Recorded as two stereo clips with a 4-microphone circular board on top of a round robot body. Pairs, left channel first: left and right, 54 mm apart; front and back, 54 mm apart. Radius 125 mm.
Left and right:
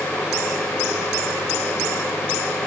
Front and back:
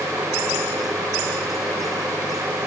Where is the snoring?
No snoring in this recording.